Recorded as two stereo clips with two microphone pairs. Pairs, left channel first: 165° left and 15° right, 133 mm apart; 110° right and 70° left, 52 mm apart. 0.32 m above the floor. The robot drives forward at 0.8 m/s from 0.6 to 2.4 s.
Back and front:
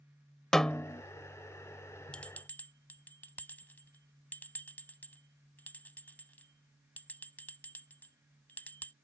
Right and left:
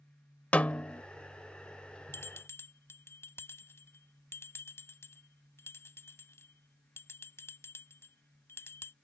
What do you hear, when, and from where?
0.5 s a snare drum: 115° right; by 1.0 s 145° right
2.1 s a bell: 115° right; by 8.9 s 120° right